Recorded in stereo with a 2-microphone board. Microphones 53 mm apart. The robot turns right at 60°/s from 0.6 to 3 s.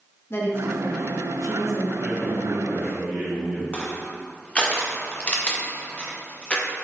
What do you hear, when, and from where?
0.3 s a woman speaking: 50° left, 1.2 m; by 1.9 s 125° left, 1.2 m
2.0 s a man speaking: 160° left, 2.0 m; by 3.6 s 140° right, 2.0 m
3.7 s crushing: 25° left (ahead or behind), 0.9 m